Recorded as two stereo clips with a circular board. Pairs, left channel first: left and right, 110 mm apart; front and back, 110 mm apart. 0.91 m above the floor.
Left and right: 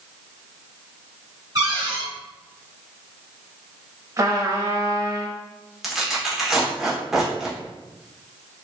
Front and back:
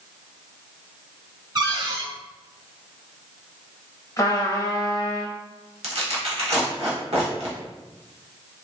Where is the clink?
I don't hear a clink.